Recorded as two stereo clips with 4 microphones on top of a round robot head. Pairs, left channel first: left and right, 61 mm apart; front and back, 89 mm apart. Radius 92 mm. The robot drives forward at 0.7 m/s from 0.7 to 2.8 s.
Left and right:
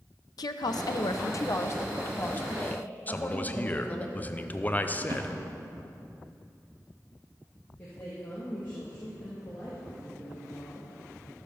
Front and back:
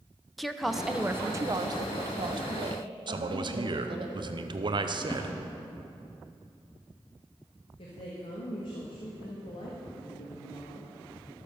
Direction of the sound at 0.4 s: 90° left.